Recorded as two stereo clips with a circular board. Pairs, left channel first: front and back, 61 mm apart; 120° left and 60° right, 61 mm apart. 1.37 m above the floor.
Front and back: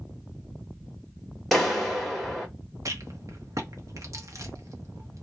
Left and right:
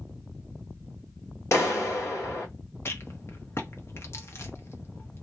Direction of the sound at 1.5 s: 90° left.